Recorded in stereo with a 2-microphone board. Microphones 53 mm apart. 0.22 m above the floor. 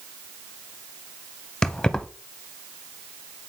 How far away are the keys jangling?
About 0.8 m.